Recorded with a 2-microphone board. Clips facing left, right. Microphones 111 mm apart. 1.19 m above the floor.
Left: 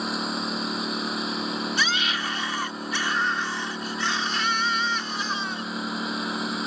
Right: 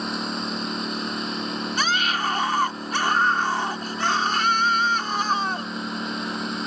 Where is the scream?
50° right (ahead or behind).